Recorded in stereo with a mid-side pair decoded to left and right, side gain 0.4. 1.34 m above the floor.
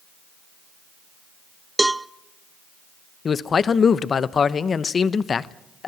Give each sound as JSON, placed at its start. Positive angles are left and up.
{"t": 1.8, "sound": "a cowbell", "azimuth_deg": -15, "distance_m": 0.5}
{"t": 3.2, "sound": "a man speaking", "azimuth_deg": 50, "distance_m": 0.9}